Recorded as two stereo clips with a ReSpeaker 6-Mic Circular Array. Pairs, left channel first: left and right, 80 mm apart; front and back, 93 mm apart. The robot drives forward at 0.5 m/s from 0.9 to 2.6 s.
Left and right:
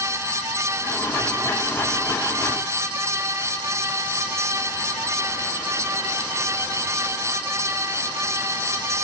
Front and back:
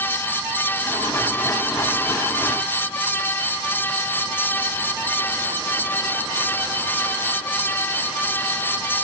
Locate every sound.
Only background noise.